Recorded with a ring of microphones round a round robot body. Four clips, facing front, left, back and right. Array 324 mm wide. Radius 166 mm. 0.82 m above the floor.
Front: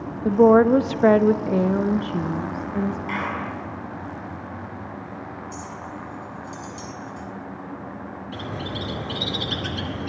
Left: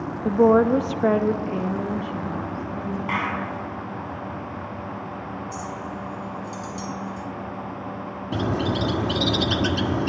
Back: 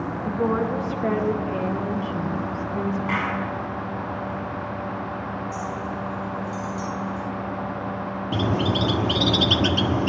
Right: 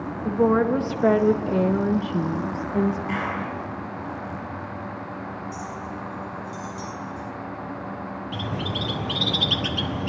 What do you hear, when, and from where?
0.2 s a woman speaking: 30° left, 1.5 m; by 3.0 s 75° right, 1.8 m
3.1 s a clap: 110° left, 7 m
5.5 s a clink: 60° left, 6 m
8.3 s a bird: 140° left, 1.4 m